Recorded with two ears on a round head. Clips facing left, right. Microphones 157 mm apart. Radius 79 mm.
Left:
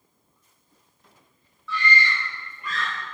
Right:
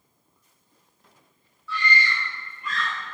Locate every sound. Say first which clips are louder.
1.7 s a scream: left 1 dB; 70° left (ahead or behind), 3.5 m